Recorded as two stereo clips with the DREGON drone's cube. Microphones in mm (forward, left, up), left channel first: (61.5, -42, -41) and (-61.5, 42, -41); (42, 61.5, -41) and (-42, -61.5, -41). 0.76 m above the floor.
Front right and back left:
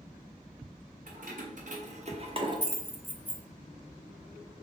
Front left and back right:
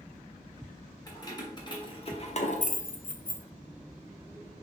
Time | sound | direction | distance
1.1 | keys jangling | 120° left | 1.3 m